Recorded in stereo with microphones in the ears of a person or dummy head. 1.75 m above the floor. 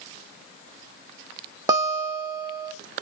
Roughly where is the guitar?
Centre.